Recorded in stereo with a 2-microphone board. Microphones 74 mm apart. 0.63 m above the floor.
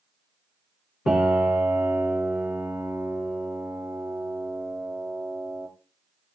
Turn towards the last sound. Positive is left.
turn(degrees=-10)  # may be behind; listen again after turning